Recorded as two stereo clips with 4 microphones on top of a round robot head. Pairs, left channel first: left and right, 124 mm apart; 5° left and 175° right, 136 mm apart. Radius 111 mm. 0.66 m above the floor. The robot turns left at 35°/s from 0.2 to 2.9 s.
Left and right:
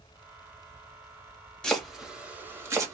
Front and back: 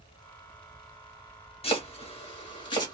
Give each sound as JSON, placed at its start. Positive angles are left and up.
{"t": 1.6, "sound": "chopping", "azimuth_deg": 5, "distance_m": 1.3}